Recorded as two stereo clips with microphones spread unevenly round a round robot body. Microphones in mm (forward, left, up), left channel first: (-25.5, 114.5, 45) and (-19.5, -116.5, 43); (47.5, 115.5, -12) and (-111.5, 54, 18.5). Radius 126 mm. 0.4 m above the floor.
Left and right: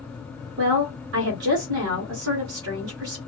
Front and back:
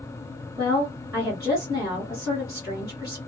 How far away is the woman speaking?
About 1.6 m.